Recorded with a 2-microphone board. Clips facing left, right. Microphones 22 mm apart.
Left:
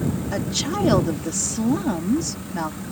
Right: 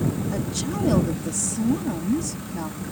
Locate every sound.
0.3 s a woman speaking: 35° left (ahead or behind)